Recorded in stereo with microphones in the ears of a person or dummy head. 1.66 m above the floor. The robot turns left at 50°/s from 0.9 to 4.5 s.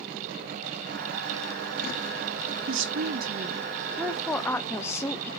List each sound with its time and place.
2.7 s a woman speaking: 105° right, 0.9 m; by 5.3 s 165° left, 0.9 m